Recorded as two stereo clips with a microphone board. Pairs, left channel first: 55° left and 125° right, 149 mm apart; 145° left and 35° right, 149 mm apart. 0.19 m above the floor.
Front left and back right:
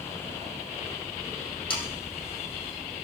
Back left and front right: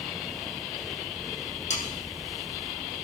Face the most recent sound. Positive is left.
turn(degrees=110)